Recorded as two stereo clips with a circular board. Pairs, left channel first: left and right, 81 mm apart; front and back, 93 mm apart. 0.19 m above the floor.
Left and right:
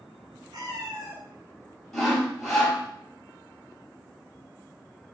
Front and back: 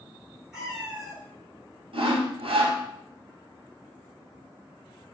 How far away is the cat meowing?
About 1.1 m.